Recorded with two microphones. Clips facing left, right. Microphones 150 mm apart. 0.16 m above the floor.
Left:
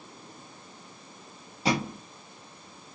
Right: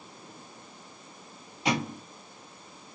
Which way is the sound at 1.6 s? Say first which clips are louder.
Left 1 dB; 35° left (ahead or behind).